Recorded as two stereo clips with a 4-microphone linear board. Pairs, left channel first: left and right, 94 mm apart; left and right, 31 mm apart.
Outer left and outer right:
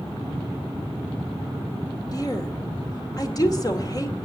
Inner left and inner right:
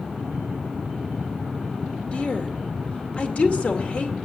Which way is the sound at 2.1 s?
40° left (ahead or behind).